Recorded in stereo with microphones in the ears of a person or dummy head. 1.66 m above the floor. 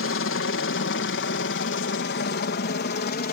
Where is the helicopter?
60° left (ahead or behind); by 3.3 s 45° left (ahead or behind).